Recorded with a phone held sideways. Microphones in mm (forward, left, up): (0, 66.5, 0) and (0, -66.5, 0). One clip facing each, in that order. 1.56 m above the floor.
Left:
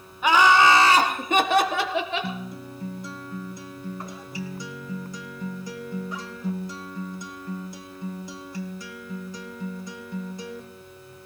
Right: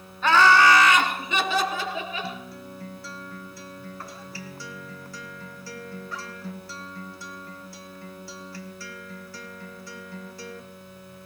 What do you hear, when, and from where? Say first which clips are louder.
0.2 s laughter: even; 10° left (ahead or behind), 1.9 m; by 2.3 s 85° left, 1.7 m
2.2 s a guitar: left 3 dB; 15° left (ahead or behind), 1.3 m